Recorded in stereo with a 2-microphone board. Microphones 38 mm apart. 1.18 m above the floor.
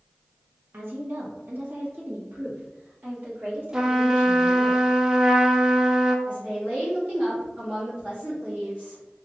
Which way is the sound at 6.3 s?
40° right (ahead or behind).